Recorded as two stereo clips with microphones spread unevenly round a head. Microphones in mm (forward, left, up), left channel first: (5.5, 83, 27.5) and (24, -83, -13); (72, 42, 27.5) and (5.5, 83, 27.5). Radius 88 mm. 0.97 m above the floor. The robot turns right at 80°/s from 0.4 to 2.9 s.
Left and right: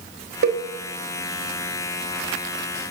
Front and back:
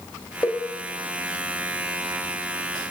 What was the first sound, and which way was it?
A cowbell, 105° right.